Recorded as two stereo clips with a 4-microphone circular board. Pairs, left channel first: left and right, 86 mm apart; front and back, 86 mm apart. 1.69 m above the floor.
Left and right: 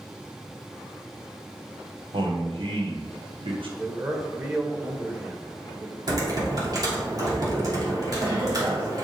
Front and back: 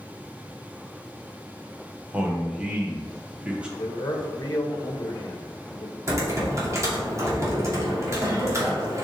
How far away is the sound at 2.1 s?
About 1.7 m.